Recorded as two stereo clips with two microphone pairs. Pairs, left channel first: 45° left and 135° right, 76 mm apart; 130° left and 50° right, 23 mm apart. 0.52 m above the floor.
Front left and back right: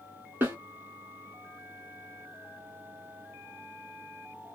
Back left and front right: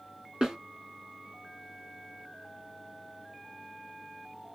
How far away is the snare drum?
About 1.7 m.